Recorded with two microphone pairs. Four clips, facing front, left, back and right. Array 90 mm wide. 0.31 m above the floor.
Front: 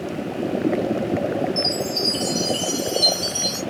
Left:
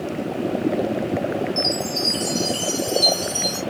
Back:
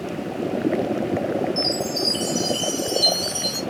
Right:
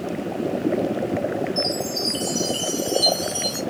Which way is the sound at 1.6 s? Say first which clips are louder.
Left 1 dB, even; 85° left.